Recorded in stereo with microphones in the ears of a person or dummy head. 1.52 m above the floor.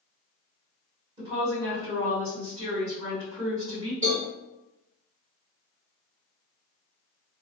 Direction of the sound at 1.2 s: 25° right (ahead or behind).